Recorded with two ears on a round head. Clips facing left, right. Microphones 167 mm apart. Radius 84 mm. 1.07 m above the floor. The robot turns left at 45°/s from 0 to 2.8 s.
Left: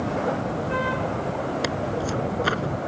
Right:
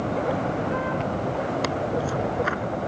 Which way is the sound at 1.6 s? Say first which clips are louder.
Right 1 dB; 175° left.